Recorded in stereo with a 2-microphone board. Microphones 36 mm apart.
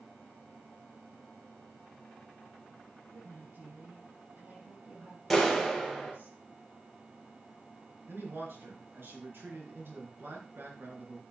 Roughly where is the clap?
Centre.